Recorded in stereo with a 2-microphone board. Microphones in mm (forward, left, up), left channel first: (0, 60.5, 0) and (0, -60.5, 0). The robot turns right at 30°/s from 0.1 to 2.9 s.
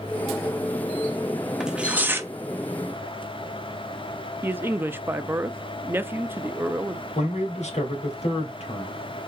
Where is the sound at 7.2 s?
70° left (ahead or behind), 2.5 m.